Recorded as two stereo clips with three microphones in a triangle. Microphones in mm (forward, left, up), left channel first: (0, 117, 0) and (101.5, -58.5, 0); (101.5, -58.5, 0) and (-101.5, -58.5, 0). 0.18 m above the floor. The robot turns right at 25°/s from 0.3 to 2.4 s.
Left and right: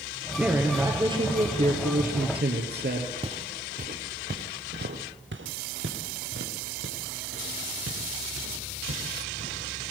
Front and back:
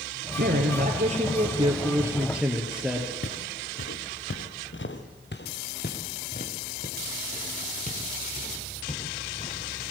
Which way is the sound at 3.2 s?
5° left.